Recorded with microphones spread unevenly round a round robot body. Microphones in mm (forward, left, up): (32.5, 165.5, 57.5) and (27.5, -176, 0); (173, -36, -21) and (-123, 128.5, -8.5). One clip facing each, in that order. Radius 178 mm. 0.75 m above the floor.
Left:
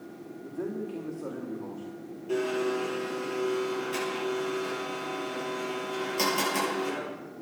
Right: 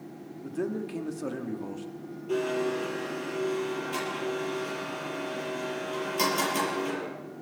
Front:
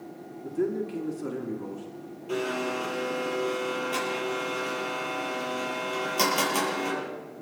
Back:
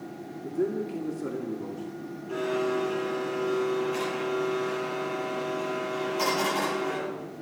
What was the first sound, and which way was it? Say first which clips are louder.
A man speaking: right 2 dB, even; 110° right.